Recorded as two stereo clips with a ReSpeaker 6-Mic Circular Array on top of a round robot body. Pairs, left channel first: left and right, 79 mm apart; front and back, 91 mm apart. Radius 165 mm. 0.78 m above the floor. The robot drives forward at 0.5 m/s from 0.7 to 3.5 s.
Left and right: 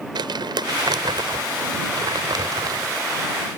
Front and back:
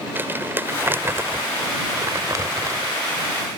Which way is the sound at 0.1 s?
115° right.